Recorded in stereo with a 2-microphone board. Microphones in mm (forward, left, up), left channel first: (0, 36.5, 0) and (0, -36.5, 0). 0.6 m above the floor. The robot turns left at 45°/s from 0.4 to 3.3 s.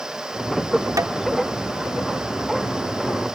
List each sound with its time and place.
1.0 s tapping: 55° right (ahead or behind)